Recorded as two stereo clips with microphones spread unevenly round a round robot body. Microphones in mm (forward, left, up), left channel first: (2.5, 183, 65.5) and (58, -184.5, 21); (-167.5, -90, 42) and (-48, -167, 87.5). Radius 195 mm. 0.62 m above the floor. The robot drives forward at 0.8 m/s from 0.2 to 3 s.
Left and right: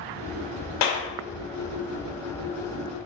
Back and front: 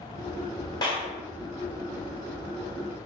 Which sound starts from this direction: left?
A clap, at 0.8 s.